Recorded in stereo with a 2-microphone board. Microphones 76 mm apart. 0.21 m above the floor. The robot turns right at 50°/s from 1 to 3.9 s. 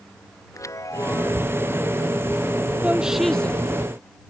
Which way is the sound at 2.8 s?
20° right.